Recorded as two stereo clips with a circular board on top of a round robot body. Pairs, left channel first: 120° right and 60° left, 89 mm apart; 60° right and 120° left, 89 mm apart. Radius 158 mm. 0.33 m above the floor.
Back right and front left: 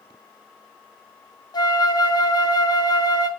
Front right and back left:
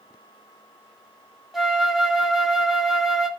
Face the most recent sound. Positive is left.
turn(degrees=-150)